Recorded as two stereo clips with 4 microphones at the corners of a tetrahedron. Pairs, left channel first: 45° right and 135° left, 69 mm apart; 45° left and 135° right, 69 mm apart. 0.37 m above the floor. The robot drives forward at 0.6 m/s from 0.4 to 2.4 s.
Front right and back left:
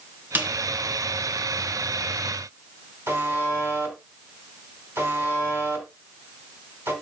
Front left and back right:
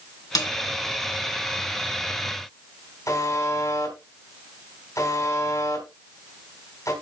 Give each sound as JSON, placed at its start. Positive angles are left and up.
{"t": 0.3, "sound": "a snare drum", "azimuth_deg": 70, "distance_m": 2.5}
{"t": 3.1, "sound": "a buzzer", "azimuth_deg": 80, "distance_m": 3.0}